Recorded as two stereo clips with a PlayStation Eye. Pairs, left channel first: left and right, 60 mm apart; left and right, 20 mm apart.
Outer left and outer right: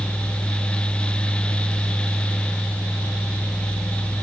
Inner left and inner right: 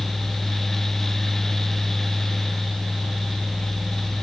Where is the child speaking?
No child speaking in this recording.